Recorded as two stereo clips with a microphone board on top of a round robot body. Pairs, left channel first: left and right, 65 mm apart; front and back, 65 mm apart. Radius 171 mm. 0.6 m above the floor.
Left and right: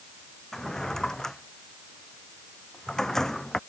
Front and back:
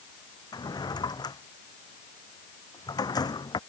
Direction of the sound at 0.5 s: 5° left.